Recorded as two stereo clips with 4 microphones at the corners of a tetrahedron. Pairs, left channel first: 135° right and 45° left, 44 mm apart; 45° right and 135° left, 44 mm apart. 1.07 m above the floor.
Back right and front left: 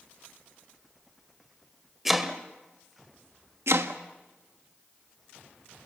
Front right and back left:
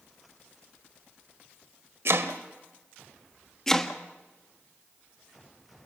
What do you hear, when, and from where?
2.0 s chopping: 130° left, 1.7 m
3.7 s chopping: 35° left, 1.4 m